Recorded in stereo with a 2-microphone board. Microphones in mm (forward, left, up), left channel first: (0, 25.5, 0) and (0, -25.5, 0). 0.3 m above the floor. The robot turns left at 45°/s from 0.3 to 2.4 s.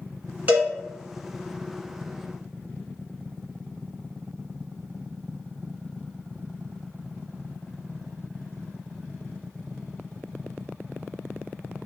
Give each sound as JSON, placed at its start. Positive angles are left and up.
{"t": 0.5, "sound": "a cowbell", "side_deg": -30, "distance_m": 1.1}